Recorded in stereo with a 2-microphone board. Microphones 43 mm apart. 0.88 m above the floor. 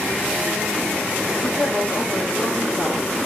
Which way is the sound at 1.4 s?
60° left (ahead or behind).